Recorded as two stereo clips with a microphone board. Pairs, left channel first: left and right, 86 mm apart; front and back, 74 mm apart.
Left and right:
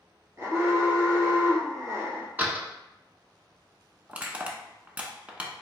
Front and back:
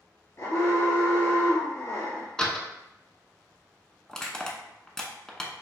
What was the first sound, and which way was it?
An alarm, 40° right.